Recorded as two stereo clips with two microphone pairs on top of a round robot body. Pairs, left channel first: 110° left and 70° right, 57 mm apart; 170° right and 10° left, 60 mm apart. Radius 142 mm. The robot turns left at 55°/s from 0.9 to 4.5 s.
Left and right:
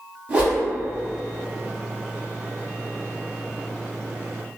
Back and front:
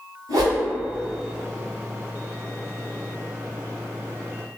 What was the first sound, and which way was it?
A whoosh, straight ahead.